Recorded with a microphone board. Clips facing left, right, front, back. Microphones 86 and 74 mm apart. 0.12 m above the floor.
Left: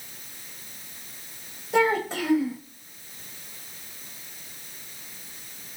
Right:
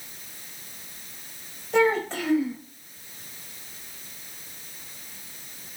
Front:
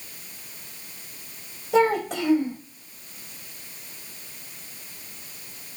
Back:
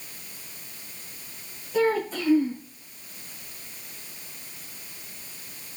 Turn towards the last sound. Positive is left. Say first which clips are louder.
# right 1 dB, front 3 dB
turn(degrees=10)